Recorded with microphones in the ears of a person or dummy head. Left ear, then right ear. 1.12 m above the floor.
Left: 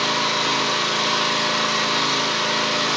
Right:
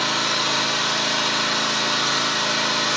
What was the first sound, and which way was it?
An engine running, 65° left (ahead or behind).